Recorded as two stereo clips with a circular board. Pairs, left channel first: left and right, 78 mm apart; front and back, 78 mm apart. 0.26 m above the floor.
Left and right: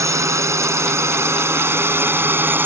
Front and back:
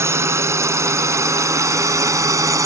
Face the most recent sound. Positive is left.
turn(degrees=-145)